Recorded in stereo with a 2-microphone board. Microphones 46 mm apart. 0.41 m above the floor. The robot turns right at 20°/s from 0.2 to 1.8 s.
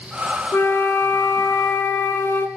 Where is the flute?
65° left (ahead or behind), 0.7 m; by 2.5 s 80° left, 0.7 m.